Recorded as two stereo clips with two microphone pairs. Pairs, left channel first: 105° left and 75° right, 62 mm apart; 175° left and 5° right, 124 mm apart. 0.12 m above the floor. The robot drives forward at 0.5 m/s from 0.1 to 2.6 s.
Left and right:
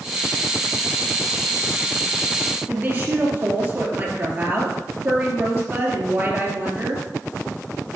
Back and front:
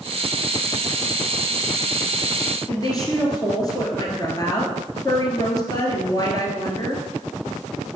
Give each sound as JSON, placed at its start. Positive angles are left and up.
{"t": 2.7, "sound": "a woman speaking", "azimuth_deg": -135, "distance_m": 2.5}